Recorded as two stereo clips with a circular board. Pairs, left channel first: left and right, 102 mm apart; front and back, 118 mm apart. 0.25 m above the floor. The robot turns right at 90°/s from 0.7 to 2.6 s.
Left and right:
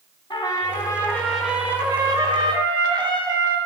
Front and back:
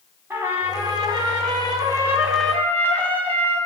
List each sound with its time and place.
0.3 s a trumpet: 115° left, 1.1 m; by 3.6 s 70° right, 1.1 m